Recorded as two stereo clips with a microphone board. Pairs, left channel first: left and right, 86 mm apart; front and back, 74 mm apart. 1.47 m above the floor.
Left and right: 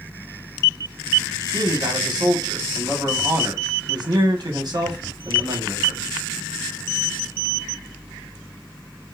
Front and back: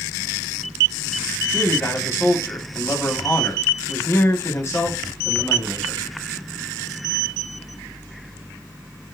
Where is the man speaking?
55° right, 1.6 m.